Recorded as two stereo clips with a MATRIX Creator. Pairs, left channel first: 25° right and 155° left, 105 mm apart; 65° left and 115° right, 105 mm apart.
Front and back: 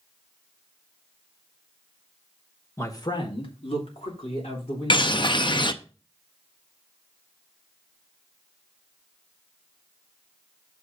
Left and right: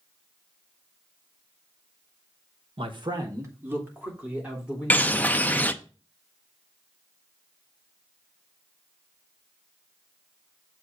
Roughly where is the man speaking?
Right.